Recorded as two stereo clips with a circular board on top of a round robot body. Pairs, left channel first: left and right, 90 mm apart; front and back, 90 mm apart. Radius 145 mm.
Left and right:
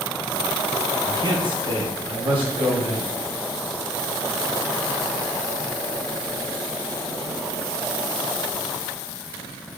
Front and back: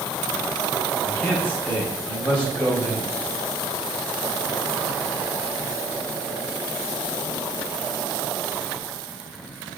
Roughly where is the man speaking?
Right.